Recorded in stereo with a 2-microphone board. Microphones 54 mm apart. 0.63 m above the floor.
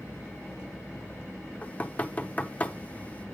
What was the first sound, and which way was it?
Knocking, 25° left (ahead or behind).